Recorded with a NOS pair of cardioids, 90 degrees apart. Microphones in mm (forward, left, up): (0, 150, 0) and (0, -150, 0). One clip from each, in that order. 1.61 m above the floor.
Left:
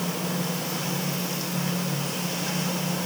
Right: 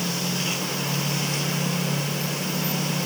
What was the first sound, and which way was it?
Only background noise.